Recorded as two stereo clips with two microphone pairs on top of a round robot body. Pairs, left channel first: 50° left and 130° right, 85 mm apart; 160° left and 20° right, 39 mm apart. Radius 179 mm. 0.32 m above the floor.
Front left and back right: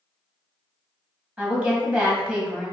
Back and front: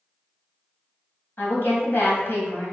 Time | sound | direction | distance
1.4 | a woman speaking | 155° left | 1.1 m